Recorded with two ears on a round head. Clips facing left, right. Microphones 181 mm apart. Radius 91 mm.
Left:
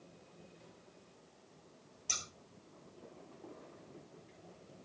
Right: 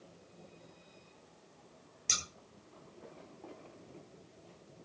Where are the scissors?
25° right (ahead or behind), 2.5 m.